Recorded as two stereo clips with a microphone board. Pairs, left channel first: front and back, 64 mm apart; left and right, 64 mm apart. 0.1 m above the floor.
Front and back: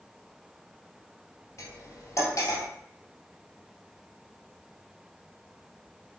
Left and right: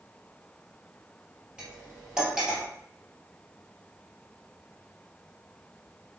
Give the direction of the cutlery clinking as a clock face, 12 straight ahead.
12 o'clock.